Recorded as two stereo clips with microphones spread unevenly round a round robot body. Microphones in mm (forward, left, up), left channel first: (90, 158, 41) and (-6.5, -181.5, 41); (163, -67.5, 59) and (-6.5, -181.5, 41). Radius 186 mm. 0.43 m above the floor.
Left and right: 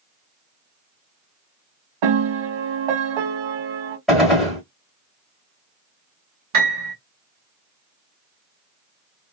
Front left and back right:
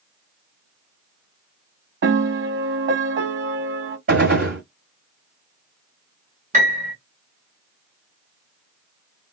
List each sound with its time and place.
2.0 s a piano: 110° right, 0.8 m
4.1 s a gunshot: 165° left, 1.1 m
6.5 s a piano: 115° right, 1.3 m